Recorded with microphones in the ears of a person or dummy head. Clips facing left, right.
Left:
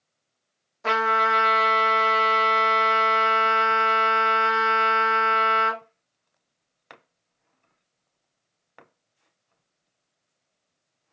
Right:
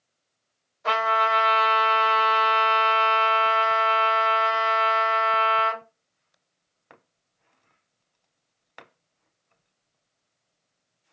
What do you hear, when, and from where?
0.8 s a trumpet: 65° left (ahead or behind), 1.3 m